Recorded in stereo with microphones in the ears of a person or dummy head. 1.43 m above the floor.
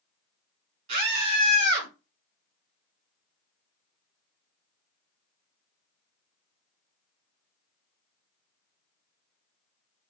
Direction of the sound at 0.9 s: 40° right (ahead or behind).